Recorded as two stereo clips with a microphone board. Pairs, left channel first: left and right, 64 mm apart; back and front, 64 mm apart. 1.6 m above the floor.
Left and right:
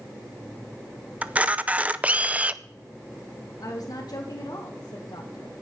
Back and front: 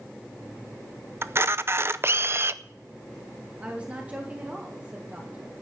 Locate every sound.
1.2 s a camera shutter: 30° right, 0.6 m
3.6 s a woman speaking: 70° left, 1.9 m